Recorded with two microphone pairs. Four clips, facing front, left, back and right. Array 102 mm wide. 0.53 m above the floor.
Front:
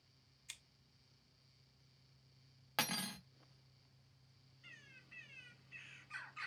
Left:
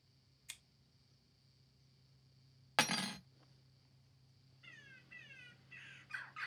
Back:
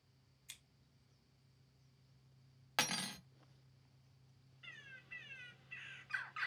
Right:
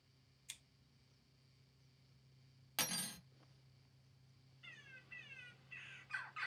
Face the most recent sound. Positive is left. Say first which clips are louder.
# even, back 6 dB
turn(degrees=175)